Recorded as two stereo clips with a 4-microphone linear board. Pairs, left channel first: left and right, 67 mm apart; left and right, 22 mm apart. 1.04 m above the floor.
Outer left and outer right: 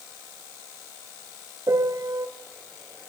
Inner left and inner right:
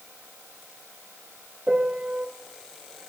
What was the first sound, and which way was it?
A piano, 50° right (ahead or behind).